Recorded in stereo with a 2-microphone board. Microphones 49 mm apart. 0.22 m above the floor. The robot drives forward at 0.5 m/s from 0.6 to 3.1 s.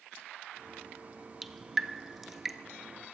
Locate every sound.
1.4 s dripping: centre (ahead or behind), 0.7 m